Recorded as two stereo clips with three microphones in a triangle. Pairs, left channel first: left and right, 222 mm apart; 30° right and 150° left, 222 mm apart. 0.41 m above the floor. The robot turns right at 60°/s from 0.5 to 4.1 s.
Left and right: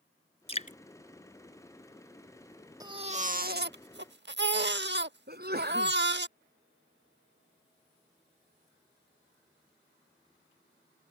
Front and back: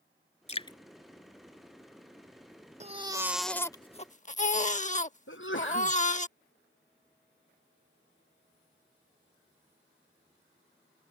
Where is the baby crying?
155° right; by 6.3 s 80° right.